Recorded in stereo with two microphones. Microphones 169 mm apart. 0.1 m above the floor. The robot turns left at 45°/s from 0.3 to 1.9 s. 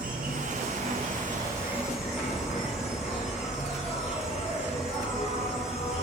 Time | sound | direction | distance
0.0 | an insect | 105° right | 0.8 m